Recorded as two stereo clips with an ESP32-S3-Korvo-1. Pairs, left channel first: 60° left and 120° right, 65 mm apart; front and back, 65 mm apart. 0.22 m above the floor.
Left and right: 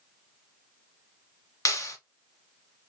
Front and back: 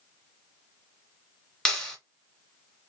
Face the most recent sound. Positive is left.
turn(degrees=80)